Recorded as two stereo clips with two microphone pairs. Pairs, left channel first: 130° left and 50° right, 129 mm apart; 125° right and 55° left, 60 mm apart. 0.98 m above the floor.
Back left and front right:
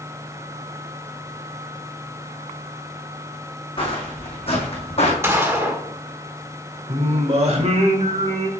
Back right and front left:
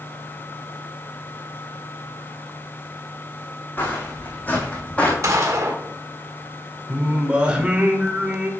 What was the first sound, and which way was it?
Footsteps, 175° left.